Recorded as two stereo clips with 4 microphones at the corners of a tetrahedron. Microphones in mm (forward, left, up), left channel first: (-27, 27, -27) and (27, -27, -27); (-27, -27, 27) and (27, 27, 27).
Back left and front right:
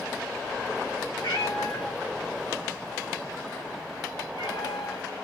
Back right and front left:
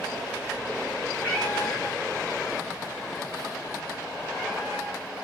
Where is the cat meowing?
155° left, 6 m; by 5.1 s 145° left, 3.5 m.